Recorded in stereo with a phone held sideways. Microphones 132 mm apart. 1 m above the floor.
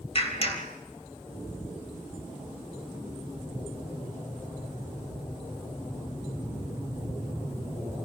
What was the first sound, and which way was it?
A clap, 45° left (ahead or behind).